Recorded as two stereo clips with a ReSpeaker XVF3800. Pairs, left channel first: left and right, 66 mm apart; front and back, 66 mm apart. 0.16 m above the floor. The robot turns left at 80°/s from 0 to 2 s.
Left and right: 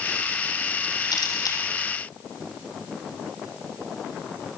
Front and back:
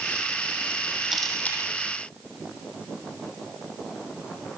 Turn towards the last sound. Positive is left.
turn(degrees=25)